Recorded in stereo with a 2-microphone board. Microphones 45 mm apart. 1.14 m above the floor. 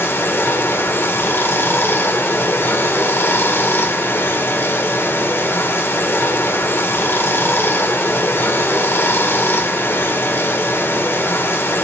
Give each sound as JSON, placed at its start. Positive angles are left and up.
{"t": 0.0, "sound": "running water", "side_deg": 55, "distance_m": 1.6}